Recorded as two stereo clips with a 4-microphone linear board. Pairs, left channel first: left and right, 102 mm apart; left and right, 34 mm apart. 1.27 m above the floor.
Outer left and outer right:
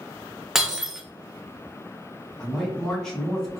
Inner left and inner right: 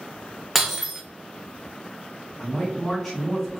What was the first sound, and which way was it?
Breaking glass, 5° right (ahead or behind).